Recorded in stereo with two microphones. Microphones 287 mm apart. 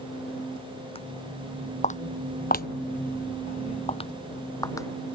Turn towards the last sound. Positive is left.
turn(degrees=10)  # may be behind; listen again after turning